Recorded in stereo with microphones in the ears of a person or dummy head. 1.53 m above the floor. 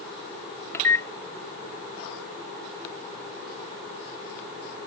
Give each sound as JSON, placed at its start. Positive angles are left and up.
{"t": 0.7, "sound": "a microwave", "side_deg": 20}